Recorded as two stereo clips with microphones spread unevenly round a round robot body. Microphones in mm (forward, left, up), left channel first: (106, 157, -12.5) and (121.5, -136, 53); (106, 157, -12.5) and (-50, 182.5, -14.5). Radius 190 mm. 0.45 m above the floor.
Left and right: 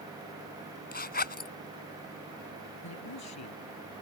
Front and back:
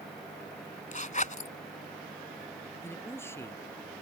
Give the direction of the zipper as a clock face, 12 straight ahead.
11 o'clock.